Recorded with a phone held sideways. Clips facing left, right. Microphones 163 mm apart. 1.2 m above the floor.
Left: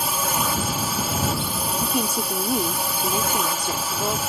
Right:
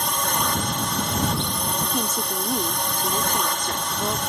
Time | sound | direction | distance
0.0 | a drone | 5° left (ahead or behind) | ?
1.8 | a woman speaking | 10° left (ahead or behind) | ?